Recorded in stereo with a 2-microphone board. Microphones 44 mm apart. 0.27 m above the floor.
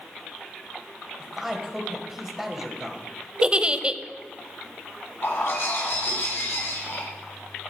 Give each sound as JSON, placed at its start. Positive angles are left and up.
{"t": 1.2, "sound": "a man speaking", "side_deg": -10, "distance_m": 1.5}
{"t": 3.4, "sound": "a giggle", "side_deg": -25, "distance_m": 0.5}
{"t": 5.2, "sound": "a bird", "side_deg": 70, "distance_m": 6.0}